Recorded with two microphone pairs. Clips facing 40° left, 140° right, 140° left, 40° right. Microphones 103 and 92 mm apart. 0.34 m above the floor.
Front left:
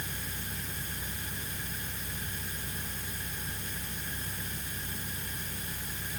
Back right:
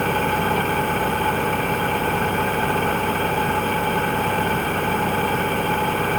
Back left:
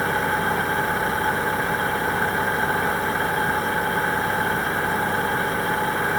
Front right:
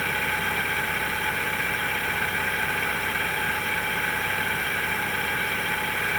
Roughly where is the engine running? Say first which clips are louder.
Back right 22 dB, back left 6 dB; behind right.